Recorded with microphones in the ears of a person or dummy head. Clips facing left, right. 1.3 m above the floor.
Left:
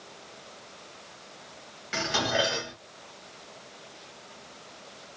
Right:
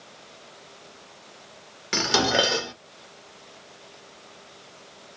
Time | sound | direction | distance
1.9 | dishes clattering | 60° right (ahead or behind) | 0.9 m